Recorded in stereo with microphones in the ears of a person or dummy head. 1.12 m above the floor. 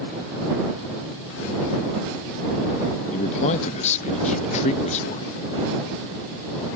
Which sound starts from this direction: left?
A man speaking, at 3.1 s.